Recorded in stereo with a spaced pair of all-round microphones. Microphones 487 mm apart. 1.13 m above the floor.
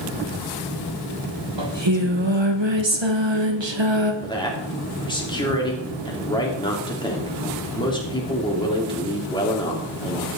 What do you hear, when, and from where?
1.6 s singing: 65° right (ahead or behind), 1.2 m
4.2 s a man speaking: 10° left (ahead or behind), 3 m